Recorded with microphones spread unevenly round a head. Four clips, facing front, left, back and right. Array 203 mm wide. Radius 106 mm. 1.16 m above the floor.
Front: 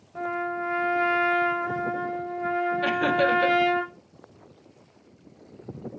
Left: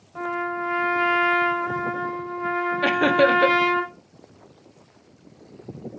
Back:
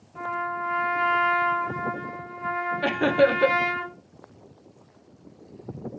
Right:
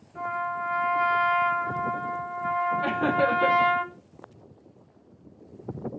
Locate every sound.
0.1 s a trumpet: 30° left, 1.0 m
2.8 s laughter: 90° left, 0.6 m